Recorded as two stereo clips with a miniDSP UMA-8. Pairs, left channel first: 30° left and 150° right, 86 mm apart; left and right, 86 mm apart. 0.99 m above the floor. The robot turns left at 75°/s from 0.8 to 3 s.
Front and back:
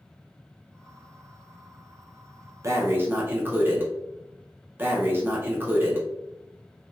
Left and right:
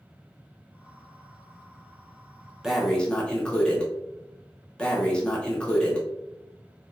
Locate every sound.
2.6 s breathing: 170° right, 0.6 m; by 6.1 s 160° left, 0.6 m